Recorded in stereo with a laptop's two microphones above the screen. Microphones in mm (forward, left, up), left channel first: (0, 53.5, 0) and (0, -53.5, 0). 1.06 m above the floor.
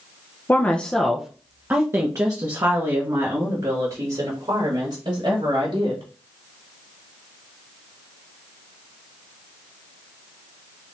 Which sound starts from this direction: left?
A woman speaking, at 0.5 s.